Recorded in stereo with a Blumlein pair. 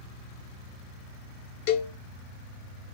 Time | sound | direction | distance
1.7 | a cowbell | 50° left | 0.7 m